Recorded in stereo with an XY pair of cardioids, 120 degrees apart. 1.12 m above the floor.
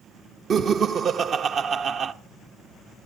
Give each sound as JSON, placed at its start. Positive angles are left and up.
{"t": 0.5, "sound": "laughter", "azimuth_deg": -50, "distance_m": 1.0}